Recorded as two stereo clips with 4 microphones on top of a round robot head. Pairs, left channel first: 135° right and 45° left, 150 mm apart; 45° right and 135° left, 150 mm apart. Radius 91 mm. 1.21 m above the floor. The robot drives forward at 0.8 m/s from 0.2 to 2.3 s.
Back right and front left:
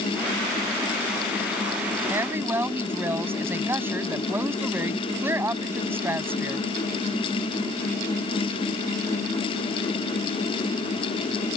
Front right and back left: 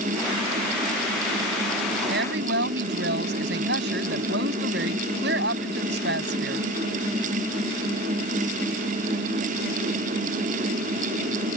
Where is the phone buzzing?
No phone buzzing in this recording.